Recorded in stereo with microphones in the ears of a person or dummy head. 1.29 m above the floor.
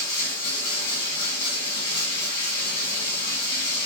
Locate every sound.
0.0 s running water: 65° left (ahead or behind), 1.7 m